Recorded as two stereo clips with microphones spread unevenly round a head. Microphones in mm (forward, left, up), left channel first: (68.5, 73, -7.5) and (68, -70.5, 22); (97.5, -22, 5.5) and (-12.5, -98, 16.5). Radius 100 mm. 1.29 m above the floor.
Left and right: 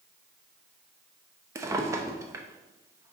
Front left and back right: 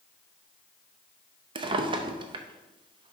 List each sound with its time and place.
1.6 s a drawer: 135° right, 0.6 m